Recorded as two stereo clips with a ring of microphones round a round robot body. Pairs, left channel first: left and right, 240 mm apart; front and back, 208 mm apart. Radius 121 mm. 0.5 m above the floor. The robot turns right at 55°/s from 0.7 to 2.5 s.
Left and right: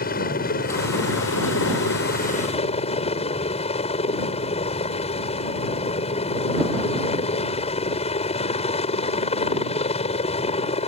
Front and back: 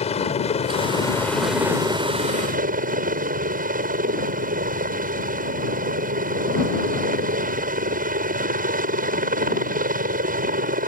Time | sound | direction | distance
0.0 | a helicopter | 50° left | ?